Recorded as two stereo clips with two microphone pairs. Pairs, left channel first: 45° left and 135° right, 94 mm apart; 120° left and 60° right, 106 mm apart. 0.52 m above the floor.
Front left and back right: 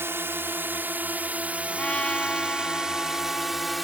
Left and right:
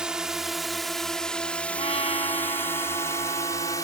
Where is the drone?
135° right; by 3.9 s 135° left.